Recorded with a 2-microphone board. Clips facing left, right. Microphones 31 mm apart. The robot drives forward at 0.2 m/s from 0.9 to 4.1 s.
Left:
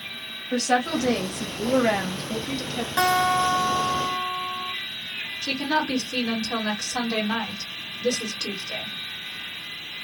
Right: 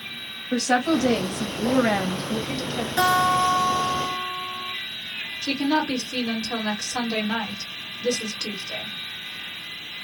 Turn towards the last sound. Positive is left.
turn(degrees=15)  # may be behind; listen again after turning